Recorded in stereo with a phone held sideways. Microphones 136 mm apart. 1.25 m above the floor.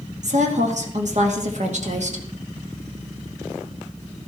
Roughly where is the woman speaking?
Right.